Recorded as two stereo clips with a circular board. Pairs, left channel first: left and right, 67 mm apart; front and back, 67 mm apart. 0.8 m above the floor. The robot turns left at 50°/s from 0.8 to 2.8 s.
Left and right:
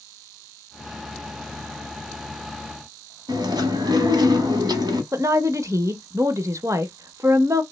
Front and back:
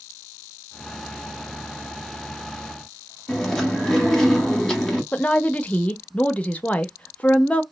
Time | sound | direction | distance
3.3 | chewing | 80° right | 0.9 m
5.1 | a woman speaking | 65° right | 0.5 m